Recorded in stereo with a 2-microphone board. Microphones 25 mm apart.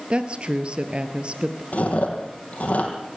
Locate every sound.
0.1 s a woman speaking: 50° right (ahead or behind), 2 m
1.7 s chewing: 70° left (ahead or behind), 5.5 m